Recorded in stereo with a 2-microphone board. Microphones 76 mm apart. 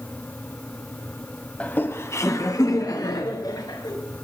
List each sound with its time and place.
1.6 s laughter: 20° left (ahead or behind), 1.0 m; by 3.9 s 65° left (ahead or behind), 3 m